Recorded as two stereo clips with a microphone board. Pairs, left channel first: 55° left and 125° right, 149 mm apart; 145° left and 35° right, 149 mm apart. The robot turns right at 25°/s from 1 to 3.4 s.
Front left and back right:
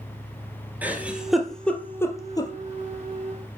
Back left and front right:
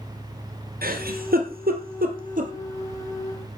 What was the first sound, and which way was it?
A giggle, 45° right.